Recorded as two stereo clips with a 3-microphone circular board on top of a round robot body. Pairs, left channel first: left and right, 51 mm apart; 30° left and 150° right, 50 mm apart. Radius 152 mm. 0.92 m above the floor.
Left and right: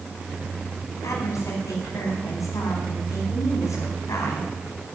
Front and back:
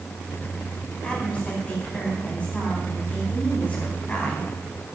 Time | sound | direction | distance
1.0 | a woman speaking | 100° left | 4.5 m